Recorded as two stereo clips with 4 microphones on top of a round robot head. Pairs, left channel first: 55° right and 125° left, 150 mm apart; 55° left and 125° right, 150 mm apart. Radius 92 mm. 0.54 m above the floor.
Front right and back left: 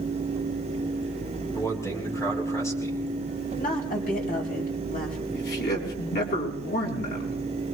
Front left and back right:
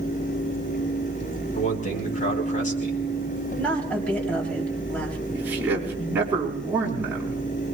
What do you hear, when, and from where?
1.6 s a man speaking: 15° left, 4.5 m
3.6 s a woman speaking: 25° right, 3.5 m
5.3 s a man speaking: 50° right, 4.5 m